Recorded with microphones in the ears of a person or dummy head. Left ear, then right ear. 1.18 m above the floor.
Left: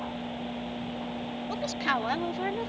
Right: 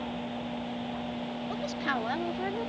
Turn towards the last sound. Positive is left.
turn(degrees=15)  # may be behind; listen again after turning